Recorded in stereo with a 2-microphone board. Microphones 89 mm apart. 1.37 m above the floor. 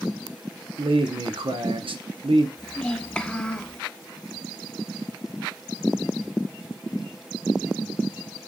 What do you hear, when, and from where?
0.8 s a man speaking: 75° right (ahead or behind), 0.7 m
2.6 s a child speaking: 10° left (ahead or behind), 0.6 m